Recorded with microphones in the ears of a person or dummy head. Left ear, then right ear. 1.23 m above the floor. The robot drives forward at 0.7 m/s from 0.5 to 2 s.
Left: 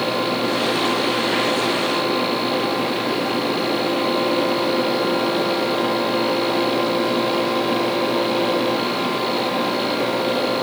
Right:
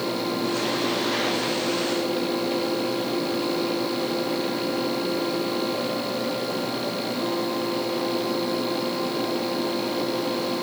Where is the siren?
No siren in this recording.